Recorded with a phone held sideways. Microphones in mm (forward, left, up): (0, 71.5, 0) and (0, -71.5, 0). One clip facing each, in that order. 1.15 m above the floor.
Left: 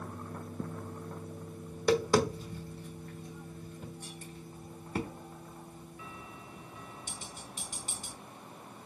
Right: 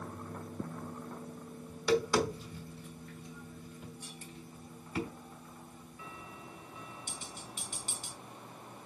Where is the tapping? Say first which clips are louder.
Left 3 dB; 40° left (ahead or behind), 1.2 m.